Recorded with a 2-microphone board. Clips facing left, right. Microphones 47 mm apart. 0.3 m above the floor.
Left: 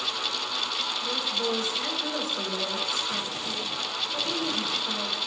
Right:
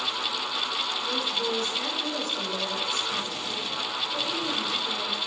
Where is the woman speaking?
10° left (ahead or behind), 5 m.